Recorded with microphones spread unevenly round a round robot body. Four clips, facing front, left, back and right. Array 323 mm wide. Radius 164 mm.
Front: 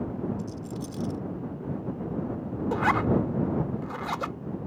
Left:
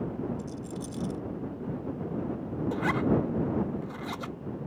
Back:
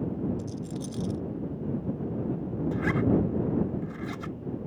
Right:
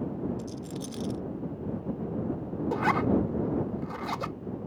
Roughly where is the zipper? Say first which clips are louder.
Right 2 dB, front 2 dB; ahead.